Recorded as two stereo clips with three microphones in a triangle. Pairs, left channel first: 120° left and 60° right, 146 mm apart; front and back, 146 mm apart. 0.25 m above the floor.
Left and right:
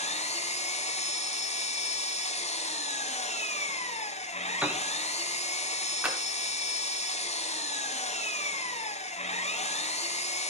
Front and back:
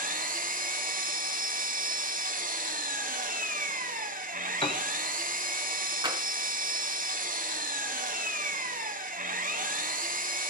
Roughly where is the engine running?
Behind.